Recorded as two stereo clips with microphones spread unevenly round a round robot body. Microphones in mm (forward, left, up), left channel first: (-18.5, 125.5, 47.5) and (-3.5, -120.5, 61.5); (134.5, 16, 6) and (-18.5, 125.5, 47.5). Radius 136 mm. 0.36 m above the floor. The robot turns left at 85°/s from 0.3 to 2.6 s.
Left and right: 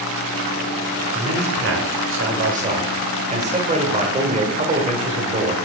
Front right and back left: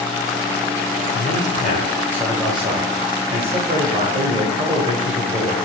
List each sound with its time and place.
1.1 s a man speaking: 20° right, 1.5 m; by 5.6 s 145° right, 1.5 m